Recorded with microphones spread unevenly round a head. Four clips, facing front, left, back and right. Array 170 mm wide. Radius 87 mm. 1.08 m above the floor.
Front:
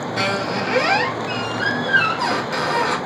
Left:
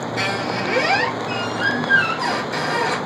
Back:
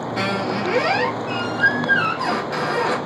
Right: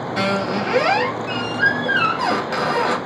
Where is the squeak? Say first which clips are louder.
Right 4 dB, even; 85° right, 1.5 m.